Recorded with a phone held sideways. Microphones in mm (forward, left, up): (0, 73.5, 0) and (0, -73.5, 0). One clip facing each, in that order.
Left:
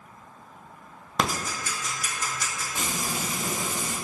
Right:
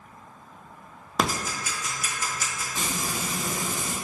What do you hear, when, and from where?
1.2 s ticking: 5° right (ahead or behind), 0.7 m
2.8 s frying: 25° left (ahead or behind), 1.9 m